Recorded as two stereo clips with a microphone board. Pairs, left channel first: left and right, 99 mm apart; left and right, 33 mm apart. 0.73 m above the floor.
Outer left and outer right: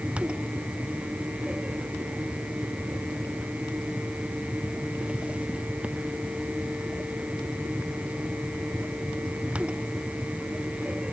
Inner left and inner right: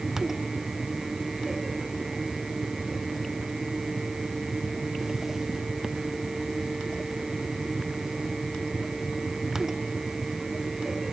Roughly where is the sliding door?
I don't hear a sliding door.